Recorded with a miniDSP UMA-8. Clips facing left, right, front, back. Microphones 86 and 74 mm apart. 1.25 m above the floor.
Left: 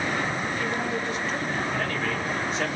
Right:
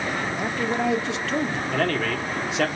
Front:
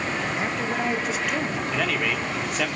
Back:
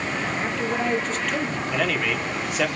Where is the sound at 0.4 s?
80° right, 2.5 m.